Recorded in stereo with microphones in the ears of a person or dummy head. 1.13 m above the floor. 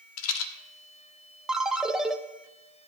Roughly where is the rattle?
Left.